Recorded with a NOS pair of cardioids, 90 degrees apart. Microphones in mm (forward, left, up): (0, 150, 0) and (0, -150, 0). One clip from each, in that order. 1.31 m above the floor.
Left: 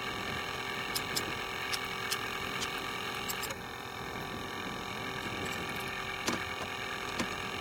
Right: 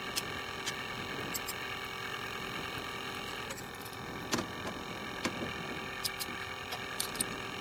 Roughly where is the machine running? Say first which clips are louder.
Left 2 dB; ahead left.